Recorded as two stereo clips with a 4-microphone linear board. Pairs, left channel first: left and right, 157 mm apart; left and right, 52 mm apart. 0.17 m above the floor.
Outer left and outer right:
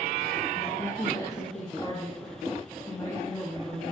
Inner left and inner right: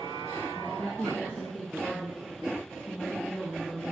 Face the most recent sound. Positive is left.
turn(degrees=10)  # may be behind; listen again after turning